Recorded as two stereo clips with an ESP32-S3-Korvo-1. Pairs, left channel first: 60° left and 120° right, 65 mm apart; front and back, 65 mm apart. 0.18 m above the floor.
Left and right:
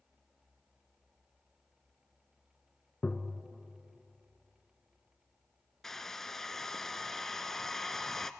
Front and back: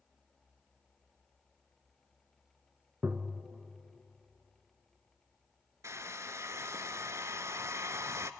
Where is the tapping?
125° left, 1.1 m.